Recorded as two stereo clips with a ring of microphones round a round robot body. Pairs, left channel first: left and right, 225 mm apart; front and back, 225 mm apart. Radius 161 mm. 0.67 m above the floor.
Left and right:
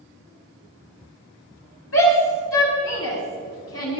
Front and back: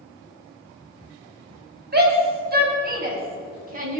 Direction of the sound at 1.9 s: 135° left.